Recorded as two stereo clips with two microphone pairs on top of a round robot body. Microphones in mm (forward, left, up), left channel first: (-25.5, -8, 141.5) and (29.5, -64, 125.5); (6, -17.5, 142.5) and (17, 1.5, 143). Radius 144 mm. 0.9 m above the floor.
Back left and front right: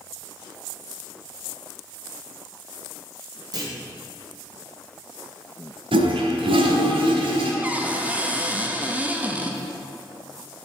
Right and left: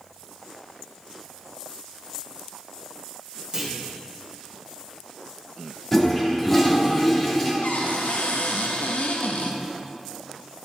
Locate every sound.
3.5 s a clunk: 5° right, 1.8 m
5.9 s a toilet flushing: 40° right, 1.0 m
7.6 s a cupboard door: 120° right, 0.6 m